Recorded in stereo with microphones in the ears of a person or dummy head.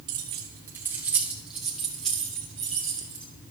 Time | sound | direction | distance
0.1 | keys jangling | 20° right (ahead or behind) | 0.7 m